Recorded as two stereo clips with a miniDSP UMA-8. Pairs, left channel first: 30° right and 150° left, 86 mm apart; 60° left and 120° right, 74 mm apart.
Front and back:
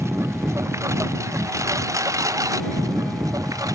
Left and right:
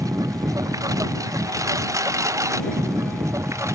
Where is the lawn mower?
155° right; by 3.7 s 165° right.